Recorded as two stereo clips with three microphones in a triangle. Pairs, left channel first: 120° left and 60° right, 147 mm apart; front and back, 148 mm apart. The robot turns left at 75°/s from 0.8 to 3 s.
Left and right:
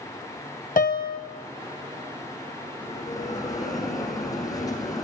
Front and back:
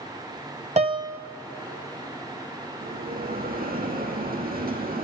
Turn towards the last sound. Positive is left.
turn(degrees=-175)